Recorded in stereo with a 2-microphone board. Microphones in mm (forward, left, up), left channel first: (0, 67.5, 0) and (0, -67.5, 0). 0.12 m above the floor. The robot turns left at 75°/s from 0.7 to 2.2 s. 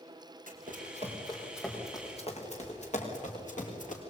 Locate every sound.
0.5 s running footsteps: 85° right, 6 m; by 4.0 s 70° left (ahead or behind), 7 m